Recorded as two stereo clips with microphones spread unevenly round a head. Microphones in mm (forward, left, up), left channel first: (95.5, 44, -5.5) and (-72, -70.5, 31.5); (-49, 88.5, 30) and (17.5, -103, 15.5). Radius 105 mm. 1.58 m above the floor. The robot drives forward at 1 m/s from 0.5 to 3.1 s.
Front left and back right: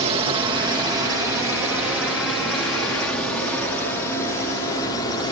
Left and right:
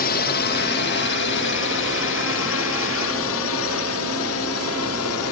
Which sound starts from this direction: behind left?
A drone, at 0.0 s.